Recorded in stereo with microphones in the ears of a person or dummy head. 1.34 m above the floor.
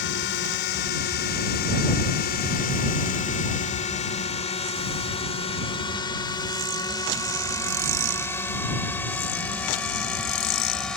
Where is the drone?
65° left (ahead or behind); by 11.0 s 5° left (ahead or behind).